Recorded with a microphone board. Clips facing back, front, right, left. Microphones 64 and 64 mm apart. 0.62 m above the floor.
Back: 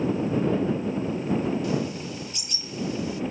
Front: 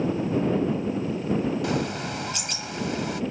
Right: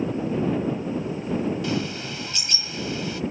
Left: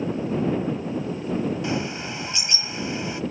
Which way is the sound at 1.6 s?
25° left.